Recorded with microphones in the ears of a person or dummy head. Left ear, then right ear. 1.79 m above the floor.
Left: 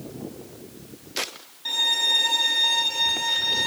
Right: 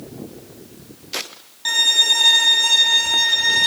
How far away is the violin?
About 5 m.